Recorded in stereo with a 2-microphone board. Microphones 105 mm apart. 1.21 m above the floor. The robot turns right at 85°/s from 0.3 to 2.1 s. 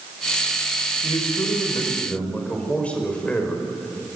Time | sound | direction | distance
1.0 | a man speaking | 75° left | 4.5 m